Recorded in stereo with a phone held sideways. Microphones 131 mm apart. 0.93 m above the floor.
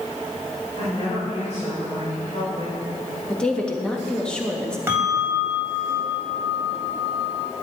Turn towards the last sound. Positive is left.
turn(degrees=-20)  # may be behind; listen again after turning